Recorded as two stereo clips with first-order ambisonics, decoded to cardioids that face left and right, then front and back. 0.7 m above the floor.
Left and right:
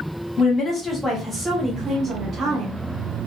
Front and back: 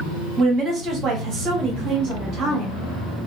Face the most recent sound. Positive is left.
turn(degrees=-145)